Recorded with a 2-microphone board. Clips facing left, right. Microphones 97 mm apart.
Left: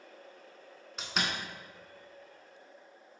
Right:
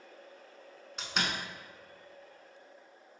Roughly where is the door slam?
Centre.